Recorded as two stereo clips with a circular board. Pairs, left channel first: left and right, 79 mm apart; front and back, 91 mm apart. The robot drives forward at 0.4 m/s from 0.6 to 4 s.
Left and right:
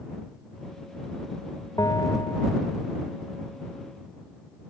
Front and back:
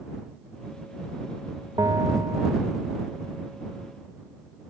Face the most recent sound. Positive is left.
turn(degrees=130)